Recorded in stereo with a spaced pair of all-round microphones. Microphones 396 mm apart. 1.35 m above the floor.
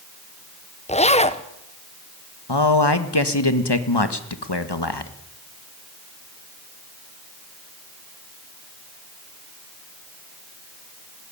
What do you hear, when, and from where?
0.9 s a zipper: 15° left (ahead or behind), 1.0 m
2.5 s a man speaking: 85° left, 1.6 m